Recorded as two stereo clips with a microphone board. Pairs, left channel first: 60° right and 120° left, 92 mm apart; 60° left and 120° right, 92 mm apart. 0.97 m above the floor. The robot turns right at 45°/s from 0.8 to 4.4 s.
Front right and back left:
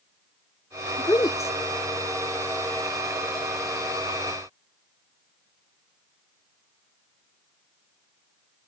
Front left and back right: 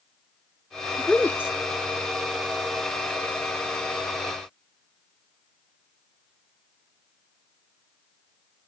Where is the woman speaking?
25° right; by 1.5 s straight ahead.